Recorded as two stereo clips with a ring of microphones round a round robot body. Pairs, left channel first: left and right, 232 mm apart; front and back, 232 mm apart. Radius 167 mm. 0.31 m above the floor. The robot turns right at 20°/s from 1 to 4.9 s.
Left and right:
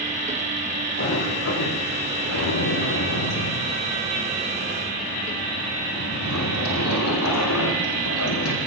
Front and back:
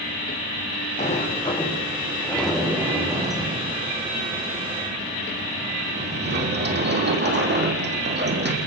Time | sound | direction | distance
1.0 | a sliding door | 60° left | 7 m